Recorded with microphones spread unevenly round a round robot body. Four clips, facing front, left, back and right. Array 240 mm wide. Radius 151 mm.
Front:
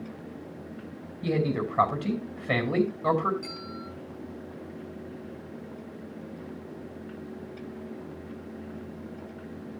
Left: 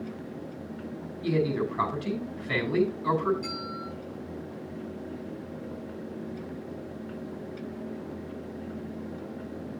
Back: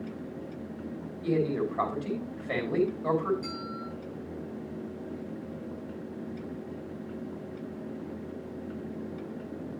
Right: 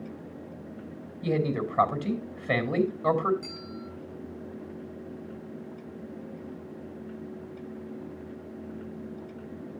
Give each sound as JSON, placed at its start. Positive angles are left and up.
{"t": 1.2, "sound": "a man speaking", "azimuth_deg": -40, "distance_m": 5.5}
{"t": 3.4, "sound": "a bell", "azimuth_deg": -105, "distance_m": 3.0}